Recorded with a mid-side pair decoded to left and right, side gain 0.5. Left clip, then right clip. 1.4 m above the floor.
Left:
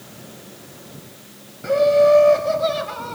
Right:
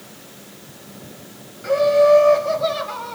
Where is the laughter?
5° left, 7.5 m; by 3.2 s 15° left, 8 m.